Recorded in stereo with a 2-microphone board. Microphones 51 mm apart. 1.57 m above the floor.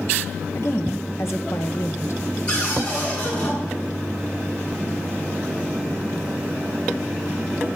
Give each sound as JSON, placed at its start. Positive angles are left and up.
{"t": 0.6, "sound": "a woman speaking", "side_deg": 65, "distance_m": 1.3}
{"t": 2.5, "sound": "a cupboard door", "side_deg": 25, "distance_m": 8.5}